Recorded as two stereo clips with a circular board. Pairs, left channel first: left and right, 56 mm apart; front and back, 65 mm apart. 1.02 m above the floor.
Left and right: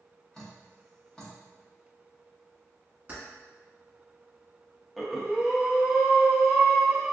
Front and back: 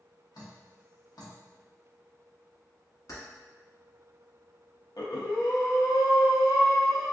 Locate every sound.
0.3 s dripping: 15° left, 1.0 m
3.1 s keys jangling: 30° right, 1.1 m
5.0 s breathing: 5° left, 0.5 m